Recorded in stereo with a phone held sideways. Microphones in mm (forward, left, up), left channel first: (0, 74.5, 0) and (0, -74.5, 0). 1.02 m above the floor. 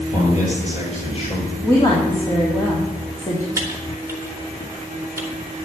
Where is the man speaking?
55° left (ahead or behind), 6.5 m; by 1.5 s 40° left (ahead or behind), 5.5 m.